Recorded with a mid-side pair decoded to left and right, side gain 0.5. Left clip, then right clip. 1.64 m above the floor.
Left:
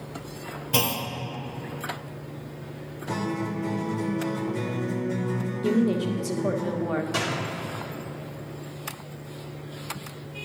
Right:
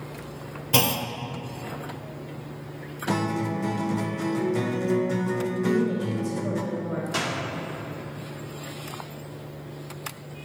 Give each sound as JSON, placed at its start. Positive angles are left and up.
{"t": 0.7, "sound": "a clunk", "azimuth_deg": -25, "distance_m": 0.6}
{"t": 3.1, "sound": "a guitar", "azimuth_deg": -50, "distance_m": 0.8}
{"t": 5.6, "sound": "a woman speaking", "azimuth_deg": 55, "distance_m": 0.9}
{"t": 7.1, "sound": "a door slam", "azimuth_deg": -15, "distance_m": 2.0}